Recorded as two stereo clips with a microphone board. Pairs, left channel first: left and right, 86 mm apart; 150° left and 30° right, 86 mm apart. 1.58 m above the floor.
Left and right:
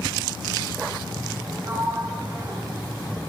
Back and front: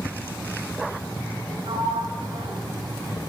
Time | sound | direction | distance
1.6 | a sliding door | 35° right | 8 m